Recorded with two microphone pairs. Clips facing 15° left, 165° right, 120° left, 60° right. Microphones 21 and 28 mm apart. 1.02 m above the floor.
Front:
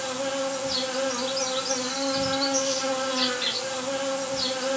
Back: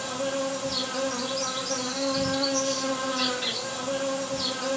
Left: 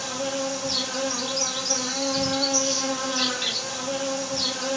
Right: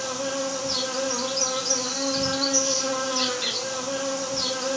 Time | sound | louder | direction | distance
0.0 | an insect | front 1 dB, even | 40° left | 2.0 m